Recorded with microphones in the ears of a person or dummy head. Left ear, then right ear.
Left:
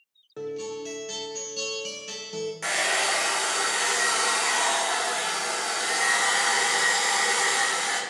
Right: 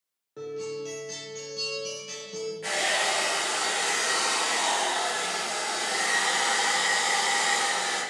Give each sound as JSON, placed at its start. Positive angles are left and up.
{"t": 0.4, "sound": "a guitar", "side_deg": 35, "distance_m": 0.5}
{"t": 2.6, "sound": "a hair dryer", "side_deg": 55, "distance_m": 0.8}